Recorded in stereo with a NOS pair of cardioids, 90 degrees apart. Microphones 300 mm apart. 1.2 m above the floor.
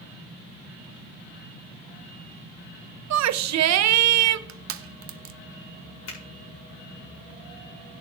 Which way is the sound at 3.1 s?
70° right.